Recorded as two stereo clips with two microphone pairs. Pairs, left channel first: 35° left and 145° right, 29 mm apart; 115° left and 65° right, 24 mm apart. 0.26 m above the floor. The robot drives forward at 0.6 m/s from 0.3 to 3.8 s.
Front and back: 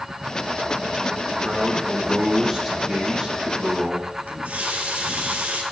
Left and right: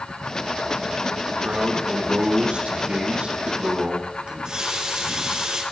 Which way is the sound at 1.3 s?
55° right.